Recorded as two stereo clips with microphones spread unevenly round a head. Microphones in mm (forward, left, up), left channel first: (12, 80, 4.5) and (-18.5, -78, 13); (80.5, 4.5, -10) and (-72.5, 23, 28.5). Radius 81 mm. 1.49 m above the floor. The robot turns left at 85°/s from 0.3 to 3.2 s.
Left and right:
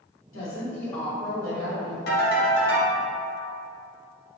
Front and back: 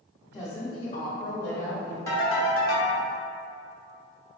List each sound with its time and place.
0.3 s a woman speaking: 65° left, 1.7 m; by 2.0 s 75° right, 1.7 m
2.1 s a ringtone: 75° left, 1.5 m; by 3.0 s straight ahead, 1.5 m